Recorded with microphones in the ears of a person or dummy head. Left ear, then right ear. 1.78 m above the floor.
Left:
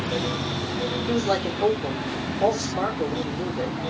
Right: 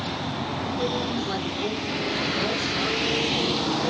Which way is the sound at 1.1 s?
40° left (ahead or behind).